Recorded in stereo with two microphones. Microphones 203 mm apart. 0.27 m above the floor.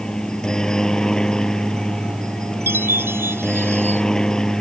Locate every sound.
0.0 s a helicopter: 5° left (ahead or behind)
2.7 s a chime: 10° right (ahead or behind)